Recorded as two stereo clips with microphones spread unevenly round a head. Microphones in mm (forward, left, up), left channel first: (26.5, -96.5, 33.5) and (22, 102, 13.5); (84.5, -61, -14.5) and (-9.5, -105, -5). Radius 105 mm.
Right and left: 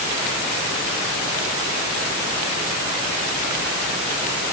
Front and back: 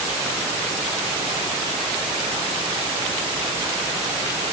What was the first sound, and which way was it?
Only background noise.